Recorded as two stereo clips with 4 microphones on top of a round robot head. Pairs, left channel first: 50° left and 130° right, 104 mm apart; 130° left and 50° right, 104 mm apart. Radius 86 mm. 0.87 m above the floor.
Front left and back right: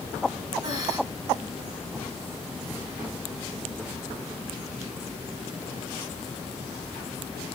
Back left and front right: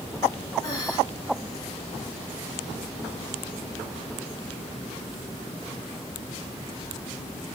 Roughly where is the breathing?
Behind.